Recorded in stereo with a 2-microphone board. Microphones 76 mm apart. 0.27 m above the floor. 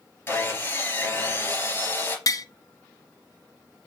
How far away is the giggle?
I don't hear a giggle.